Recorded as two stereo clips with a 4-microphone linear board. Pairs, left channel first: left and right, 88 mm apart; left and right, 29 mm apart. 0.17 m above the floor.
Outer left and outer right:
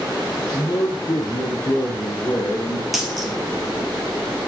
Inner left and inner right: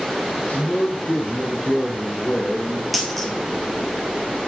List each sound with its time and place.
0.4 s a man speaking: 45° left (ahead or behind), 2.5 m
2.9 s a dropped coin: centre (ahead or behind), 2 m